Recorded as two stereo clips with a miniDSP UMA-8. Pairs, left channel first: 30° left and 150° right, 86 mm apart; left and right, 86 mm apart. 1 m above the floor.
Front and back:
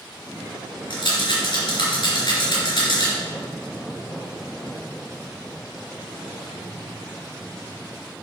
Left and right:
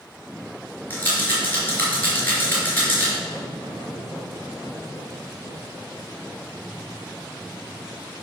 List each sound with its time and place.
0.9 s a rattle: 20° left, 3.5 m